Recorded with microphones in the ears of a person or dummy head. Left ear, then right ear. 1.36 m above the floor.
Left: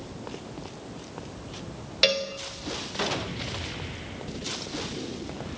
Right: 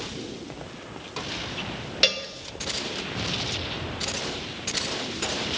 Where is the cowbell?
5° right (ahead or behind), 0.9 m.